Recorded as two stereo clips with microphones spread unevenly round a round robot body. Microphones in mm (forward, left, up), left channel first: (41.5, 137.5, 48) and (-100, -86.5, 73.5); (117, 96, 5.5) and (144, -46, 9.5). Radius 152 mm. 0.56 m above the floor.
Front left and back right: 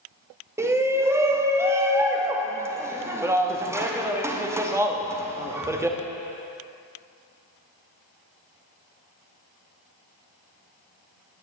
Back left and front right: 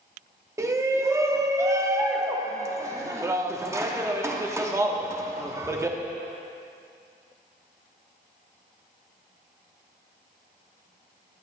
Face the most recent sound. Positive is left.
turn(degrees=-40)